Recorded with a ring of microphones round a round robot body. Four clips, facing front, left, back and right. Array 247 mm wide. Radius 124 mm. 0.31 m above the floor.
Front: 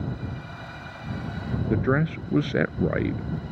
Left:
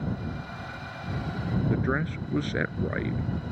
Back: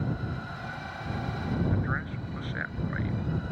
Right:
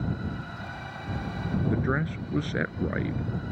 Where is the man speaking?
5° left.